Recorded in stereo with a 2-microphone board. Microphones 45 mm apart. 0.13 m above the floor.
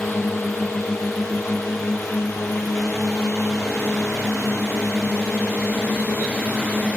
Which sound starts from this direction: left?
A drone, at 0.0 s.